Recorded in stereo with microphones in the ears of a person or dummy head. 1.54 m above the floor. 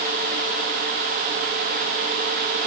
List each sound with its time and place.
Only background noise.